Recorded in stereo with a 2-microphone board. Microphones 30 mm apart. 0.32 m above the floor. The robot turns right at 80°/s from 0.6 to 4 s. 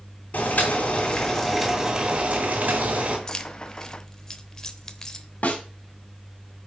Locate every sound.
0.3 s boiling: 105° left, 2.5 m; by 3.2 s 50° right, 2.5 m
3.3 s keys jangling: 20° left (ahead or behind), 0.8 m; by 5.3 s 15° left (ahead or behind), 0.8 m
5.4 s a snare drum: 55° left (ahead or behind), 2.5 m